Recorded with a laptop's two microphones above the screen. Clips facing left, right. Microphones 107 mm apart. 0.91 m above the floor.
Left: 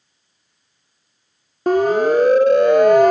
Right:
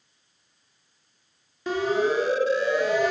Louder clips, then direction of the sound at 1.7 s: Left 9 dB; 50° left (ahead or behind).